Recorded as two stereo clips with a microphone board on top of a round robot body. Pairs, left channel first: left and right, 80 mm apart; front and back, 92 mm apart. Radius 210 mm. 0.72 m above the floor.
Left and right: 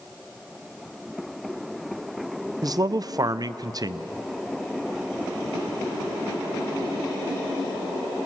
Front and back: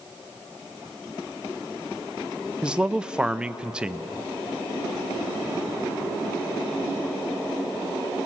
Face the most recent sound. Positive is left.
turn(degrees=-100)